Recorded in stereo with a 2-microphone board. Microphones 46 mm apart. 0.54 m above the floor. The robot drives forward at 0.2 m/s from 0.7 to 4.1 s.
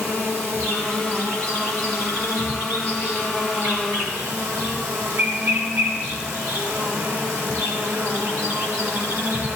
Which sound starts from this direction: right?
An insect, at 0.0 s.